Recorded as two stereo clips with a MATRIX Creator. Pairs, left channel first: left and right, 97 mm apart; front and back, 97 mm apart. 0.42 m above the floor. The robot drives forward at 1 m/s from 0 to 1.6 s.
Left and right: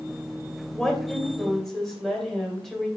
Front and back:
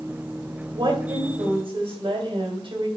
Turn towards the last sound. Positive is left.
turn(degrees=180)